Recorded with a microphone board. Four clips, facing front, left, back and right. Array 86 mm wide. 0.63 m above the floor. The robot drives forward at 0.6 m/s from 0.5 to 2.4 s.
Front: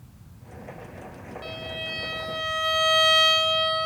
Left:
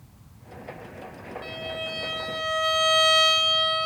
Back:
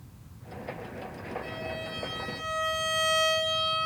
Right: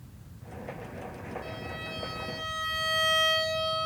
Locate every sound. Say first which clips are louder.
1.4 s a violin: left 5 dB, even; 35° left, 1.7 m; by 3.9 s 50° left, 1.3 m